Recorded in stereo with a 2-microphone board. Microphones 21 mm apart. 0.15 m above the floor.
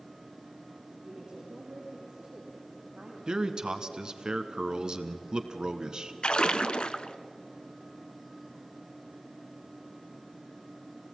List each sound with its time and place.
1.0 s a woman speaking: 30° right (ahead or behind), 7 m; by 3.2 s 45° right (ahead or behind), 6.5 m
3.3 s a man speaking: 35° right (ahead or behind), 1.2 m
6.2 s a splash: 45° left (ahead or behind), 0.7 m